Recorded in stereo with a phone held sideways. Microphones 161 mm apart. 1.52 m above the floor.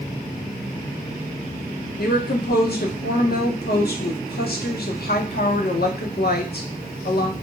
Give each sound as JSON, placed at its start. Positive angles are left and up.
{"t": 2.0, "sound": "a woman speaking", "side_deg": 75, "distance_m": 0.7}